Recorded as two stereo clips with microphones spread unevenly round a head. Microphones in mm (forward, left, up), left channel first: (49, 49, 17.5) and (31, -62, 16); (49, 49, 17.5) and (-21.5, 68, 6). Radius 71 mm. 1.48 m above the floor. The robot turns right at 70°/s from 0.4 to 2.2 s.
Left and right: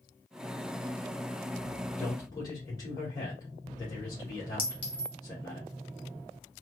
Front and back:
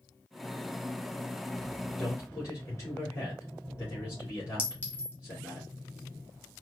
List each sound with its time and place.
2.0 s a man speaking: 10° left, 2.0 m; by 5.6 s 25° left, 2.0 m
4.6 s a clink: 45° left, 1.6 m